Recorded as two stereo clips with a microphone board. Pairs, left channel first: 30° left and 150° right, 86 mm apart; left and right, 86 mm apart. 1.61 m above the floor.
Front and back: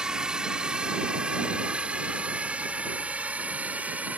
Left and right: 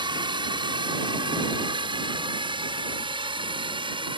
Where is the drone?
70° right; by 4.2 s 75° right.